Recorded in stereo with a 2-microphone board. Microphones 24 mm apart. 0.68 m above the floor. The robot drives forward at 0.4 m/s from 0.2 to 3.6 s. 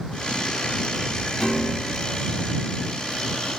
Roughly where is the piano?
Centre.